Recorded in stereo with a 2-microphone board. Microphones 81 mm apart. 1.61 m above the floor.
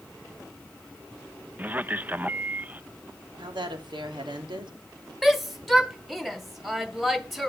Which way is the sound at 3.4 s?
75° right (ahead or behind).